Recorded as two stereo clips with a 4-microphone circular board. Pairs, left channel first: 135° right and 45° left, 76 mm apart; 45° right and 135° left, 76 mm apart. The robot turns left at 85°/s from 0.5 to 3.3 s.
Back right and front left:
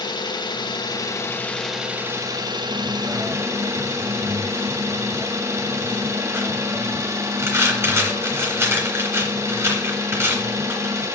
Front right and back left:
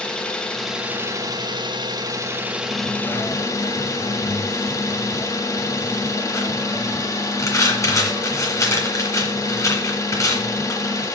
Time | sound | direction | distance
0.0 | an engine running | 125° right | 1.0 m
2.7 | a dropped coin | 45° left | 2 m